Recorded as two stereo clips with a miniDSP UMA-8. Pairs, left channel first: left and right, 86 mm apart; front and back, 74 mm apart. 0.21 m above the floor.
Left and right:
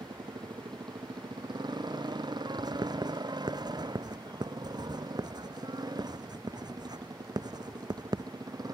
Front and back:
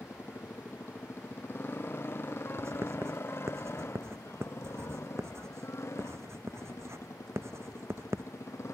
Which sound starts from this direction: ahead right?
A motorcycle, at 0.0 s.